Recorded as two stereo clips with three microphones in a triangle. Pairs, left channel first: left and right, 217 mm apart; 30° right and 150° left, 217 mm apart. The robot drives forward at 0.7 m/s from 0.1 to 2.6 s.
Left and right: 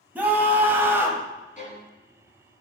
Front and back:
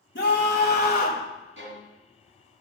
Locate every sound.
0.1 s a scream: 10° right, 1.7 m; by 1.2 s 15° right, 1.2 m
1.6 s a violin: 140° left, 2 m; by 1.9 s 145° left, 2.5 m